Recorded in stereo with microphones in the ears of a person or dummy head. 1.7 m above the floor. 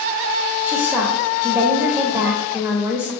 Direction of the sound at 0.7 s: 15° right (ahead or behind).